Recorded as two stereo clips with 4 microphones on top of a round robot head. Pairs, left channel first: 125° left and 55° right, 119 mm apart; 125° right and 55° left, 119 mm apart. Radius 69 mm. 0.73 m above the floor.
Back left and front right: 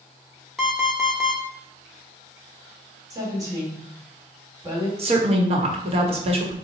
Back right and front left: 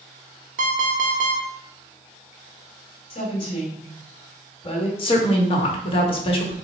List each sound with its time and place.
0.6 s an alarm clock: 35° left, 0.8 m
3.1 s a woman speaking: 105° right, 1.5 m
5.0 s a woman speaking: 85° right, 1.0 m